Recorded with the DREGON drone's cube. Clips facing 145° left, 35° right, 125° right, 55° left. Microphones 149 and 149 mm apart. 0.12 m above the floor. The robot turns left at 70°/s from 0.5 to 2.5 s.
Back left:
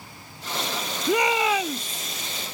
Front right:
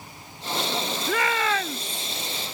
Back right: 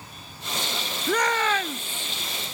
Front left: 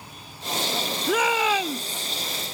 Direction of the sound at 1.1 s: 135° left.